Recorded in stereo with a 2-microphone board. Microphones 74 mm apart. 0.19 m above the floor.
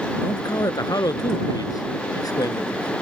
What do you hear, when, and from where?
0.2 s a man speaking: 60° left (ahead or behind)